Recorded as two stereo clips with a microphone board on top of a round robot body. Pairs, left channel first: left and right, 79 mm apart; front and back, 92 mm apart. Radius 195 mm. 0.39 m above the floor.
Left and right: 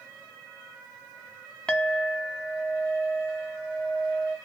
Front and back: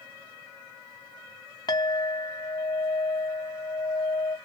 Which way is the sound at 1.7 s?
20° left.